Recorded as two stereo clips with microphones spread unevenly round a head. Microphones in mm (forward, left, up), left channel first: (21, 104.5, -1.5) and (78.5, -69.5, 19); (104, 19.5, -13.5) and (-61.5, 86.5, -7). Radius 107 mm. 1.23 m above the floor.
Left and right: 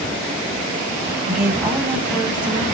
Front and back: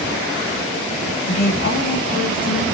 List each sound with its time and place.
1.3 s a woman speaking: 5° right, 0.9 m